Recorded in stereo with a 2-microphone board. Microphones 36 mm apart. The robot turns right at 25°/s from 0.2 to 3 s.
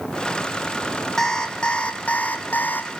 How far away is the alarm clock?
About 2.5 m.